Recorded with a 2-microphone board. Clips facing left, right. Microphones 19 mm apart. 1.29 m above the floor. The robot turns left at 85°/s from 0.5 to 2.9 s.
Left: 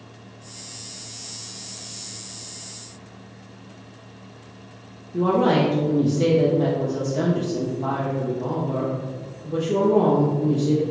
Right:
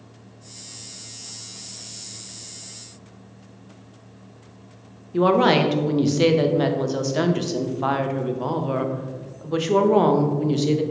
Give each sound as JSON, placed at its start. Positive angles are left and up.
{"t": 5.1, "sound": "a woman speaking", "side_deg": -70, "distance_m": 0.5}